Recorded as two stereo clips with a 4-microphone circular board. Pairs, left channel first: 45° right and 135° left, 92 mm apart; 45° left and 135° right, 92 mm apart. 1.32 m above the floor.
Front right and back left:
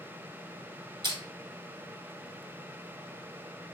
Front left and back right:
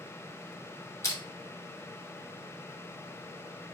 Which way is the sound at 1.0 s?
100° left.